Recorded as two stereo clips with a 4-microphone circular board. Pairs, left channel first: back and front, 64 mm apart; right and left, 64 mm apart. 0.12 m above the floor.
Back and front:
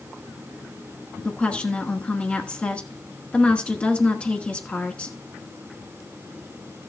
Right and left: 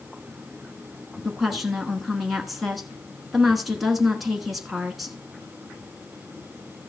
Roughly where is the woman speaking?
Behind.